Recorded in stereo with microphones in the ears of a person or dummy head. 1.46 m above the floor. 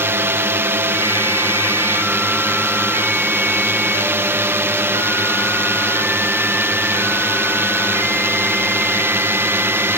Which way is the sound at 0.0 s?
15° right (ahead or behind).